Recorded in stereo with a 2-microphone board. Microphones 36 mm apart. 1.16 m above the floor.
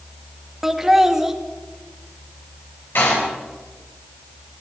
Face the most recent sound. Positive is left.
turn(degrees=70)  # may be behind; listen again after turning